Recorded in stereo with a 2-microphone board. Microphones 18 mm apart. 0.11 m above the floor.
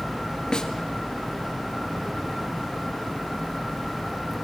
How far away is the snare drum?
About 1.9 m.